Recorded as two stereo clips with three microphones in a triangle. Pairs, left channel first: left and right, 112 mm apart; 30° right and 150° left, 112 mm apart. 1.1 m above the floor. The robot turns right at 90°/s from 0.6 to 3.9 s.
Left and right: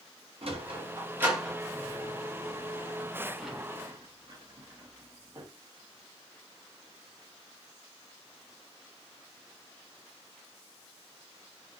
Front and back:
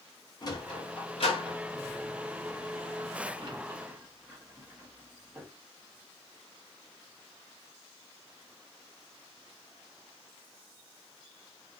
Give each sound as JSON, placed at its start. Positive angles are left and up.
{"t": 0.4, "sound": "a sliding door", "azimuth_deg": -75, "distance_m": 0.9}